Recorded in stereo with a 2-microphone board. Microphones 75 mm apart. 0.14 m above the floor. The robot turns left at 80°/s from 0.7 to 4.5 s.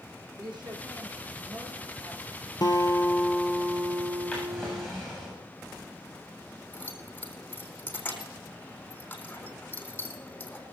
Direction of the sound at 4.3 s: 5° left (ahead or behind).